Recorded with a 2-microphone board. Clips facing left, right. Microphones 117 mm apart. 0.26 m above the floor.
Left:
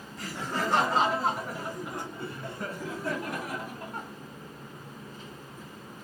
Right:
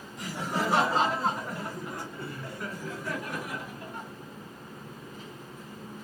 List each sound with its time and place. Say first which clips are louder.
0.2 s laughter: right 1 dB; 15° right (ahead or behind), 1.6 m; by 4.1 s 45° left (ahead or behind), 2.5 m